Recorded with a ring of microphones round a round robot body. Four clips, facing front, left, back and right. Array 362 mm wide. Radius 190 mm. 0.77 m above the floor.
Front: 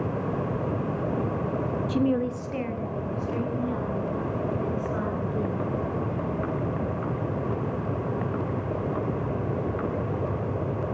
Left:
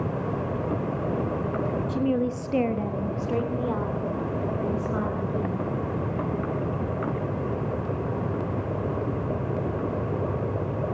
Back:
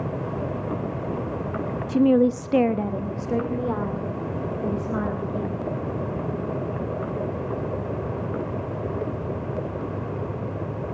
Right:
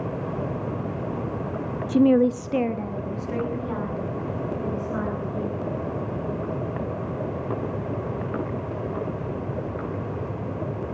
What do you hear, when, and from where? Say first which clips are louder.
1.9 s a woman speaking: right 10 dB, back 8 dB; 100° right, 0.9 m; by 5.6 s 150° left, 5.5 m